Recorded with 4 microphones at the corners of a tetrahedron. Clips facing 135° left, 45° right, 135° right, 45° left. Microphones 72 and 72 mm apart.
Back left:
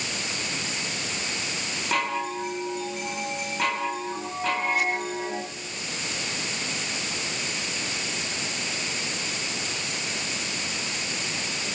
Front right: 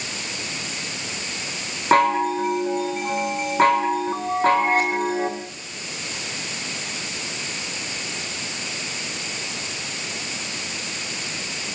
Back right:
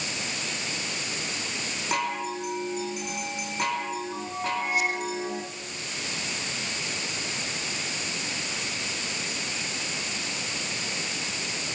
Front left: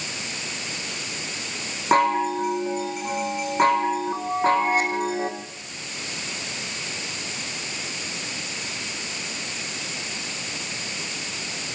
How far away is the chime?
About 4 m.